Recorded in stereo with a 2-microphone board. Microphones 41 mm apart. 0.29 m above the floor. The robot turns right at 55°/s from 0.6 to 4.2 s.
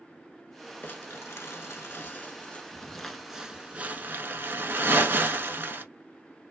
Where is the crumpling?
50° left (ahead or behind), 0.6 m; by 5.8 s 55° right (ahead or behind), 0.6 m.